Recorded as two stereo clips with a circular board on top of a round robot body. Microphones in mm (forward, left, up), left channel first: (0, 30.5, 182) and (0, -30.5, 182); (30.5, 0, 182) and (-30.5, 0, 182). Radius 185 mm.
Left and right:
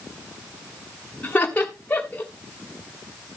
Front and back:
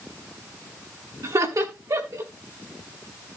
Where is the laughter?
150° left, 3.5 m.